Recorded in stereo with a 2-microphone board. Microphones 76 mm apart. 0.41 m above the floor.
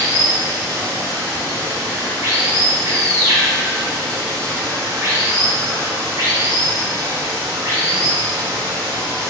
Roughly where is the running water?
Right.